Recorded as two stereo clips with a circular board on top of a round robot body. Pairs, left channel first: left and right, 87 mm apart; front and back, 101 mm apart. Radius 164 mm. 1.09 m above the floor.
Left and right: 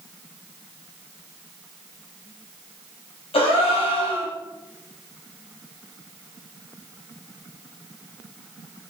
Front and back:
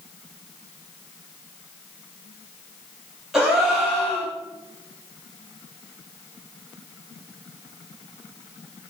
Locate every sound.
3.3 s a gasp: 90° left, 0.5 m